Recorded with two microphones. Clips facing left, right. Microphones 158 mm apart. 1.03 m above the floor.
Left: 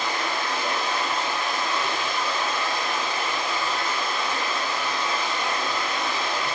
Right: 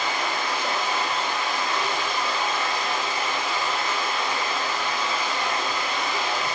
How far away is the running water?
About 1.2 m.